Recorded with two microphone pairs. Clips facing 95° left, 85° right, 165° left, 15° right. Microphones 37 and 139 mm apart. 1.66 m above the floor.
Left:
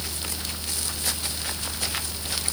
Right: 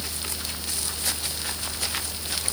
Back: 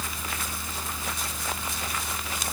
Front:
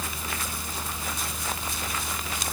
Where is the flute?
No flute in this recording.